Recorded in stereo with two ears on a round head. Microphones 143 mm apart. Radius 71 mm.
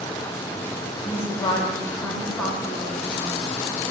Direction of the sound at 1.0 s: 35° left (ahead or behind).